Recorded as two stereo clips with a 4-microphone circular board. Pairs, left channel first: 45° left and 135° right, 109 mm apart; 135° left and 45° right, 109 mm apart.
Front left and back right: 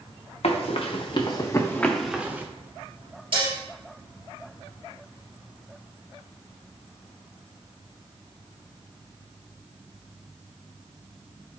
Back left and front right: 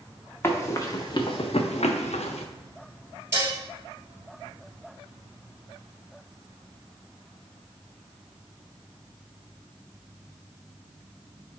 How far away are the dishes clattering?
About 2 m.